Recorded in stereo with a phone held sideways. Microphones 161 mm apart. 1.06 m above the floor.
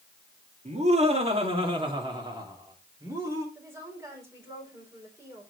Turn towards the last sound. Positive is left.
turn(degrees=-15)  # may be behind; listen again after turning